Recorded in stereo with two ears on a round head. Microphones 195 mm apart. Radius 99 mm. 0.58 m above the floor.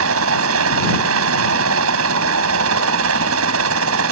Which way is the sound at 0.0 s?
70° right (ahead or behind).